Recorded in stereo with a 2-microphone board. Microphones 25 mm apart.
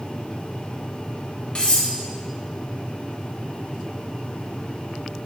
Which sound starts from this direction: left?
Cutlery clinking, at 1.6 s.